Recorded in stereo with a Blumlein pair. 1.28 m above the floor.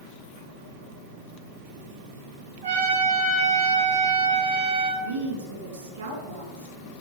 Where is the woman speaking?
65° right, 2.5 m.